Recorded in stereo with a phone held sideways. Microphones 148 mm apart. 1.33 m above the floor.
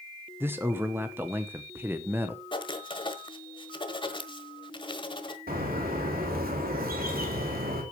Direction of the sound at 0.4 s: 15° right (ahead or behind).